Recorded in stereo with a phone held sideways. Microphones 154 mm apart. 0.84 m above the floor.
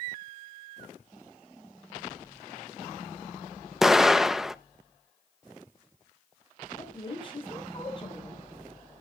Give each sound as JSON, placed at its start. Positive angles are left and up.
{"t": 3.8, "sound": "an explosion", "side_deg": 0, "distance_m": 0.6}
{"t": 6.8, "sound": "a woman speaking", "side_deg": 35, "distance_m": 5.5}